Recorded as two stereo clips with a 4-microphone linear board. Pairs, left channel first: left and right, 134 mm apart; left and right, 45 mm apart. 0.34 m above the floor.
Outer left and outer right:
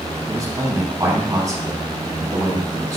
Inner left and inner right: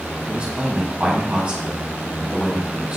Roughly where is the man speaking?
Right.